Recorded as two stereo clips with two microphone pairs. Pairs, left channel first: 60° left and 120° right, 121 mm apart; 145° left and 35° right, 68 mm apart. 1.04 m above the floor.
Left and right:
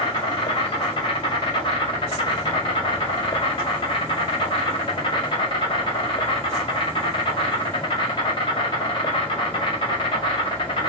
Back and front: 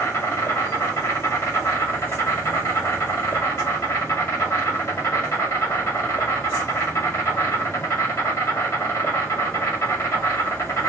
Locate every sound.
0.0 s an insect: 110° left, 1.2 m